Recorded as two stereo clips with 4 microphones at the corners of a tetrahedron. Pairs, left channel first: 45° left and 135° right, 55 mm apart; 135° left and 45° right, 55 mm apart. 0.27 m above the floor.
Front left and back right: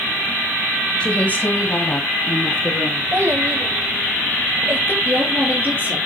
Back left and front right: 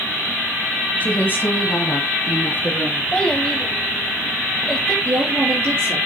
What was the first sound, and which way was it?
A woman speaking, 100° left.